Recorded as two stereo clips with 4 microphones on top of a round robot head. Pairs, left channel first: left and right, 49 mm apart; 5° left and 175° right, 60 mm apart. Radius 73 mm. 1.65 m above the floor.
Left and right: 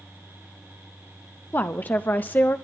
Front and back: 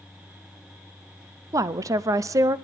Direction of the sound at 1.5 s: 150° left.